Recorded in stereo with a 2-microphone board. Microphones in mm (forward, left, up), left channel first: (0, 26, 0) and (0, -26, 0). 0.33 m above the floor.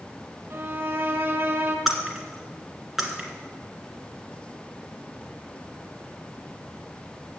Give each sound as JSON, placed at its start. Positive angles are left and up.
{"t": 0.5, "sound": "a violin", "side_deg": -45, "distance_m": 1.3}
{"t": 1.9, "sound": "breaking glass", "side_deg": -5, "distance_m": 1.6}